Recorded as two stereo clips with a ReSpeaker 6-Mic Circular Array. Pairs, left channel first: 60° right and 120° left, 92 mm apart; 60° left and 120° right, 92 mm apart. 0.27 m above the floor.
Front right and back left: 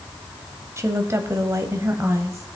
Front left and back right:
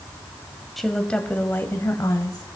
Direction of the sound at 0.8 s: 150° left.